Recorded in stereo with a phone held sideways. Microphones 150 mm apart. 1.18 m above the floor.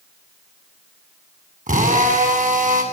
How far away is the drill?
About 8 m.